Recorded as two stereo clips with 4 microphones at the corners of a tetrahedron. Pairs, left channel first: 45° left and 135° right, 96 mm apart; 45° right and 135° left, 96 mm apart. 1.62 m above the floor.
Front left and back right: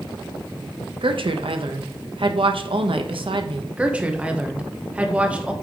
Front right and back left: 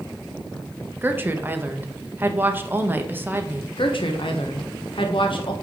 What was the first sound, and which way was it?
A woman speaking, 155° right.